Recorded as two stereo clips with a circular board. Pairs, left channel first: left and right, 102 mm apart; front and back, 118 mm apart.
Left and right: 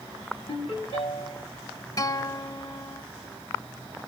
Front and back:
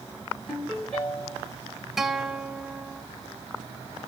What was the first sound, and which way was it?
A ringtone, 75° left.